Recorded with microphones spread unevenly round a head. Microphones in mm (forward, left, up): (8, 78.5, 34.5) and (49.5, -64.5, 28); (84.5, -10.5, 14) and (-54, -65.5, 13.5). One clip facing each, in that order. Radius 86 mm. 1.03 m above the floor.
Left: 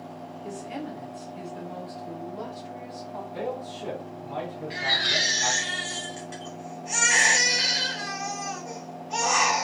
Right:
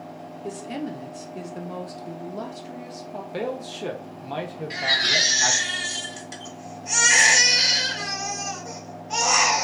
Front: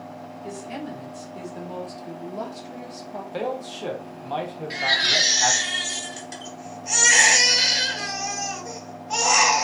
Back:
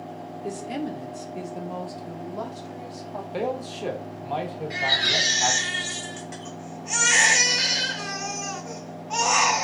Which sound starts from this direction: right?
A man speaking, at 3.3 s.